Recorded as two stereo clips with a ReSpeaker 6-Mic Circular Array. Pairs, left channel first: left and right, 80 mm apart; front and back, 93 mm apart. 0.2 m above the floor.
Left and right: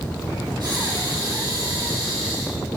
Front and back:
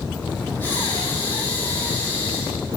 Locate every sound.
0.6 s breathing: 65° right, 7 m